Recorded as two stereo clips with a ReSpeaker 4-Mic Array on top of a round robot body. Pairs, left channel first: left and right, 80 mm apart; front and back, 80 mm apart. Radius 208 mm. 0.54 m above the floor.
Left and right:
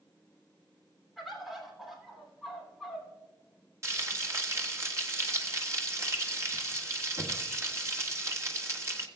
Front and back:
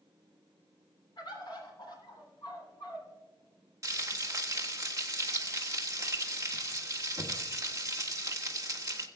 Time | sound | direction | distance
1.2 | a bird | straight ahead | 3 m
3.8 | frying | 135° right | 1.8 m